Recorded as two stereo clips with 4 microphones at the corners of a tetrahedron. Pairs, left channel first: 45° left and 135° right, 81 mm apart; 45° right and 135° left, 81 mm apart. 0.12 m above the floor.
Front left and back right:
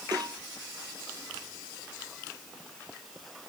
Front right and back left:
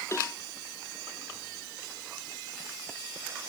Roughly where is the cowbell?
Right.